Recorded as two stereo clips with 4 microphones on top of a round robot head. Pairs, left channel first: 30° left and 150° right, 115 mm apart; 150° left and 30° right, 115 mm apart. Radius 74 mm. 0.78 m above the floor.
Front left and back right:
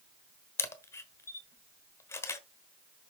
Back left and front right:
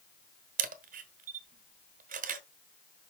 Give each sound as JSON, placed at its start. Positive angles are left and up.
{"t": 0.6, "sound": "a camera shutter", "azimuth_deg": -40, "distance_m": 1.2}